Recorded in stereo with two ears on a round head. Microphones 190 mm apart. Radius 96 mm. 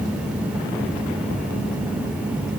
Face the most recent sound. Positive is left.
No sound to turn to.